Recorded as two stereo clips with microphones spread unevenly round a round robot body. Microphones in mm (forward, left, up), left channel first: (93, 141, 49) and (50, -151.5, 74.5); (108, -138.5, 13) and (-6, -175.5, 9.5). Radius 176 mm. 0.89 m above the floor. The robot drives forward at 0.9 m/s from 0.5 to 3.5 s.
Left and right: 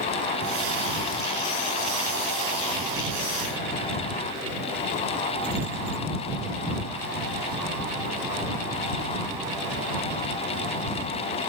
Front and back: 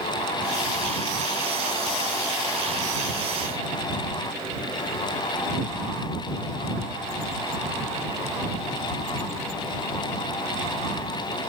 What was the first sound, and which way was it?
Only background noise.